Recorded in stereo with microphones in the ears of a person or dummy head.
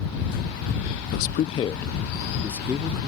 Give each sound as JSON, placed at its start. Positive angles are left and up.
{"t": 1.1, "sound": "a man speaking", "side_deg": 60}